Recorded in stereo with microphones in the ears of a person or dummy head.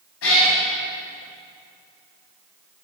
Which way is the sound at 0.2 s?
80° left.